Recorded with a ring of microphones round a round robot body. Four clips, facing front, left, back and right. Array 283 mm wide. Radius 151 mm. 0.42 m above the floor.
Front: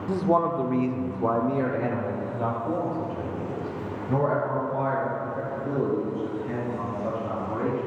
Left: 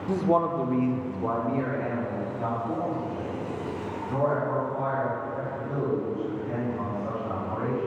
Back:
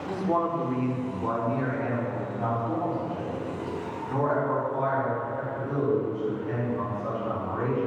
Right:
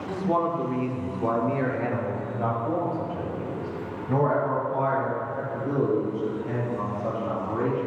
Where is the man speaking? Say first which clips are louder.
Left 2 dB, front 3 dB; 45° left, 0.9 m; by 7.9 s 55° right, 4.5 m.